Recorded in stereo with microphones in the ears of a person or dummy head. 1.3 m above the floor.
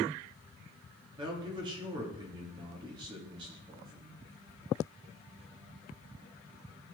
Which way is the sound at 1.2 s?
25° right (ahead or behind).